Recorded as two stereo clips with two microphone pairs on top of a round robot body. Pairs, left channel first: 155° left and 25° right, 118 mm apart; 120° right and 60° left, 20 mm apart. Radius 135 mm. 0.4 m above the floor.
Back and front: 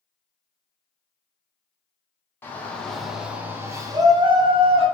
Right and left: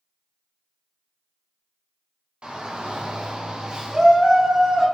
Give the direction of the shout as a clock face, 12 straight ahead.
9 o'clock.